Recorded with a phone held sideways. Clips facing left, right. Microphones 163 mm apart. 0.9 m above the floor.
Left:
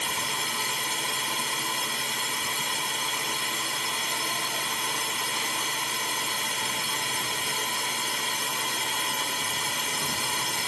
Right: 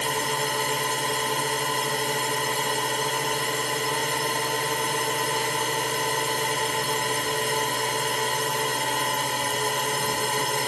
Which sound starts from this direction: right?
A drone, at 0.0 s.